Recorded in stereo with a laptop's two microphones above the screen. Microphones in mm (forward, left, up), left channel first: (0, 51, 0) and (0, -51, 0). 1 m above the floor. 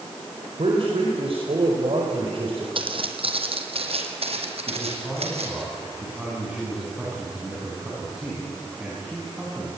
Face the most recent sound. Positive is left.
turn(degrees=-10)  # may be behind; listen again after turning